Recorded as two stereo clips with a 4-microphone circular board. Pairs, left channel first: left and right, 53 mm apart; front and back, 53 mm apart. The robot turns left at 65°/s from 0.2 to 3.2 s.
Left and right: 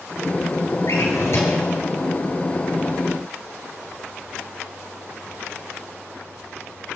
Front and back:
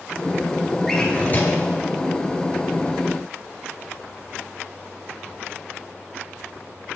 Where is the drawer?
85° left, 2.5 m; by 1.7 s 35° left, 2.5 m.